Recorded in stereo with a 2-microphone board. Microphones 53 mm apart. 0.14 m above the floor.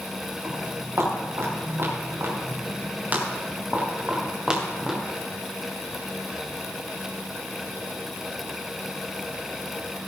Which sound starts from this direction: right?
Footsteps, at 0.4 s.